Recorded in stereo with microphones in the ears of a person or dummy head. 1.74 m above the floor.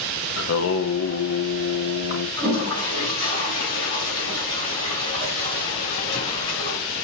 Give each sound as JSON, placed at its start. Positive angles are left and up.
{"t": 0.4, "sound": "singing", "side_deg": 70, "distance_m": 0.8}
{"t": 2.4, "sound": "a toilet flushing", "side_deg": 25, "distance_m": 3.5}